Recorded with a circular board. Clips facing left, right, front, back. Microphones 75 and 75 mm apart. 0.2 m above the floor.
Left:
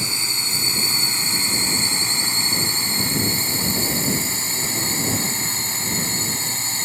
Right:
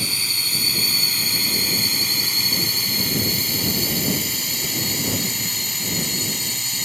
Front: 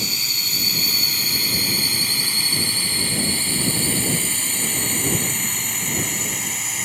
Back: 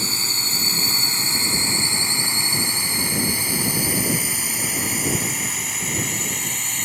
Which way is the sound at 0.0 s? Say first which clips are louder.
Left 1 dB, back 1 dB; 145° left.